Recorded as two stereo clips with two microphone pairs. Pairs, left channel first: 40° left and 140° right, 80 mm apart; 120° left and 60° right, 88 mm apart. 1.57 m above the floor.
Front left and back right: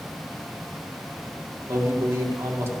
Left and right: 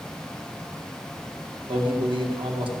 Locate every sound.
1.7 s a man speaking: 85° right, 2.0 m